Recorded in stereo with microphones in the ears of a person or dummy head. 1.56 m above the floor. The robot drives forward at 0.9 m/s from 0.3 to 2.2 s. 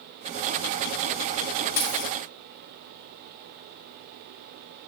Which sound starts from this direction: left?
A dropped coin, at 1.8 s.